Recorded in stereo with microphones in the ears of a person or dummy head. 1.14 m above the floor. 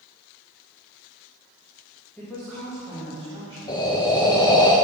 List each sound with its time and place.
2.2 s a woman speaking: 10° left (ahead or behind), 1.8 m; by 4.7 s 20° left (ahead or behind), 3 m
3.7 s breathing: 20° left (ahead or behind), 0.8 m